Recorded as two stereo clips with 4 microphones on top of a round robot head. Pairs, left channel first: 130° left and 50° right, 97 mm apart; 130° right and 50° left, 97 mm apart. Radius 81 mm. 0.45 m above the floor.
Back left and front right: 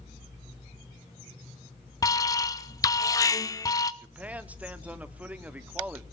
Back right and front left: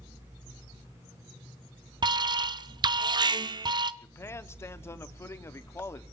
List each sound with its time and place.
2.0 s an alarm: 85° left, 0.8 m
4.0 s a man speaking: 105° right, 1.2 m